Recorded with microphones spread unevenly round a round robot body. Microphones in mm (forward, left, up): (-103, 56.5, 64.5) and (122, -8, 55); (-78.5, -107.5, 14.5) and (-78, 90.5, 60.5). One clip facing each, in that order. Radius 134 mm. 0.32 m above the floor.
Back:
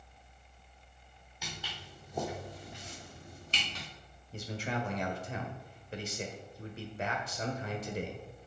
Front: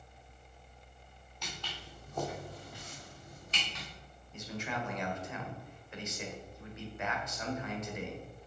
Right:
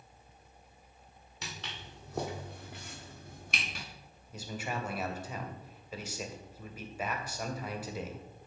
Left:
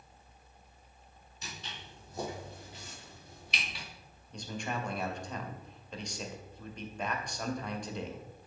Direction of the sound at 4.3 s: 155° right.